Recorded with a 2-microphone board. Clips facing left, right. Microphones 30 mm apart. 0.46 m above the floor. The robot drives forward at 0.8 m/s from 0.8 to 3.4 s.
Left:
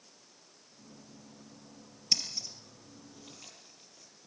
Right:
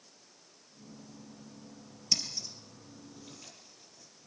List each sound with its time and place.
2.1 s scissors: 15° left (ahead or behind), 5 m; by 4.3 s 10° left (ahead or behind), 6 m